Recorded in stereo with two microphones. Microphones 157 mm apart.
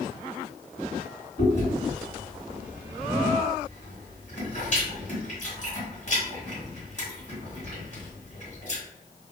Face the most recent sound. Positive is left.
turn(degrees=50)  # may be behind; listen again after turning